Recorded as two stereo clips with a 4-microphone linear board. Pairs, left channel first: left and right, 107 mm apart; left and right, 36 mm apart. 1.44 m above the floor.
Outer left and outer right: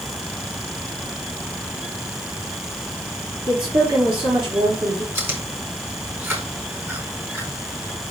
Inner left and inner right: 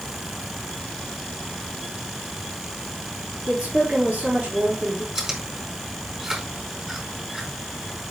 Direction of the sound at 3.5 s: 55° right (ahead or behind).